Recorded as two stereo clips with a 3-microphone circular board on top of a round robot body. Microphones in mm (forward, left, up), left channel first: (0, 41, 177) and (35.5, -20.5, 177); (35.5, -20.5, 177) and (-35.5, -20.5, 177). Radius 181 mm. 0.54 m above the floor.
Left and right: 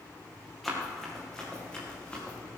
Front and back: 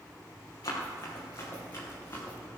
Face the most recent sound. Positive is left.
turn(degrees=50)